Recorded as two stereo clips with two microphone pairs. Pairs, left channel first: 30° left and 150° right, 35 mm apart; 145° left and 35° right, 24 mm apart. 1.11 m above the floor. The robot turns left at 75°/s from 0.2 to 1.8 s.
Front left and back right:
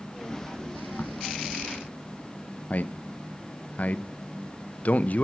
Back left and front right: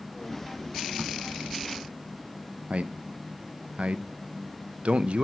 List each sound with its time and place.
1.0 s a crack: straight ahead, 0.9 m; by 1.1 s 10° right, 0.9 m
2.7 s a man speaking: 10° right, 0.7 m